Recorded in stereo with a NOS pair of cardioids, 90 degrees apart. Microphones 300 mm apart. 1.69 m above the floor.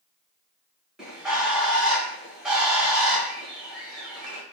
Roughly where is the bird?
Ahead.